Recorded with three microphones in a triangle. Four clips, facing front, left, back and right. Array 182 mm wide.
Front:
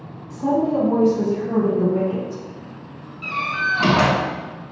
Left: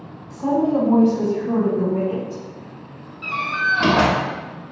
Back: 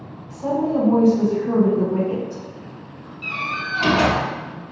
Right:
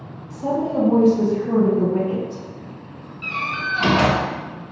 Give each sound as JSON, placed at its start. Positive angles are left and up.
{"t": 0.3, "sound": "a woman speaking", "azimuth_deg": 70, "distance_m": 1.7}
{"t": 3.2, "sound": "a door slam", "azimuth_deg": 50, "distance_m": 1.1}